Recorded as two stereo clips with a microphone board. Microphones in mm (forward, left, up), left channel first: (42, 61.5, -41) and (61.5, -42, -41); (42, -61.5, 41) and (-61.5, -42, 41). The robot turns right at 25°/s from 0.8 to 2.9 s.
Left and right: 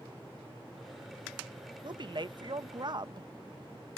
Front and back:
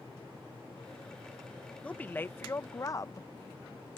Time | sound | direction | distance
1.8 | a woman speaking | 85° right | ?